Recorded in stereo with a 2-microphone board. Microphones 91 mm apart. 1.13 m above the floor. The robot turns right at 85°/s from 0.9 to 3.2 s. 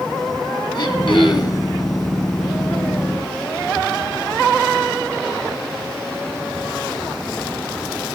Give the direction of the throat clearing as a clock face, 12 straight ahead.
10 o'clock.